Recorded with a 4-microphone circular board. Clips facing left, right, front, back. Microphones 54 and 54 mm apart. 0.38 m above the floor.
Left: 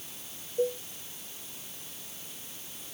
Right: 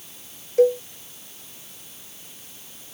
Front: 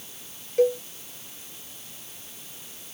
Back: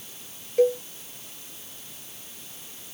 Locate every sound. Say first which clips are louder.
0.6 s a cowbell: right 12 dB, back 1 dB; 90° right